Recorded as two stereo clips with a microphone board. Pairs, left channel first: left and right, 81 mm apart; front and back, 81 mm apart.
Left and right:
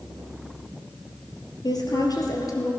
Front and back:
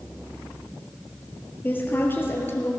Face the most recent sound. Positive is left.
turn(degrees=50)